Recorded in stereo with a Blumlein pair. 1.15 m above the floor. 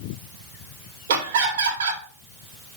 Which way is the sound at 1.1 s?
60° right.